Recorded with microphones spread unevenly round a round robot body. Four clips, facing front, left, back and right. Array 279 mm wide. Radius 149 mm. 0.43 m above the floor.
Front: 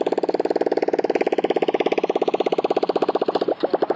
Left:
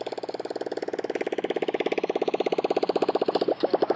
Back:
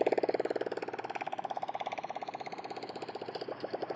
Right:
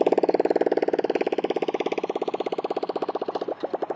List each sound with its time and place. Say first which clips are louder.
0.0 s a motorcycle: right 12 dB, front 9 dB; 50° right; by 4.0 s 30° left